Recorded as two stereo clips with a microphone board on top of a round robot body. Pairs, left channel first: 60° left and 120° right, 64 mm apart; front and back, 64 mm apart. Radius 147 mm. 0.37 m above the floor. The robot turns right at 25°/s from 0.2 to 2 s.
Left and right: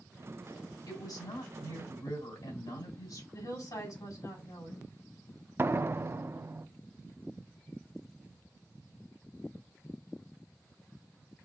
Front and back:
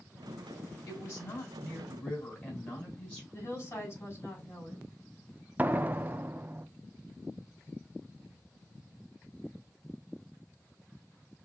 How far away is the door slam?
About 0.6 m.